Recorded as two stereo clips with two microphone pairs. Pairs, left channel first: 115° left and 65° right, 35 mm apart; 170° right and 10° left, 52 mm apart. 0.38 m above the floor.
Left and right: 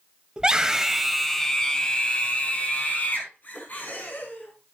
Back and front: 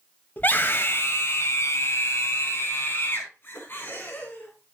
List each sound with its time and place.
0.4 s a scream: 125° right, 2 m; by 4.7 s 140° left, 5.5 m